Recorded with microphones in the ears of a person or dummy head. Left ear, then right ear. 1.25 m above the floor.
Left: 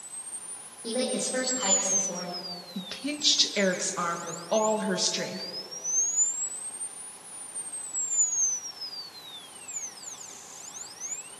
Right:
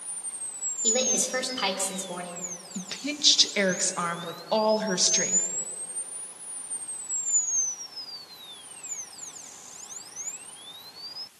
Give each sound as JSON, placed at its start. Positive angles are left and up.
{"t": 0.8, "sound": "a woman speaking", "side_deg": -65, "distance_m": 3.5}
{"t": 2.8, "sound": "a woman speaking", "side_deg": -15, "distance_m": 1.6}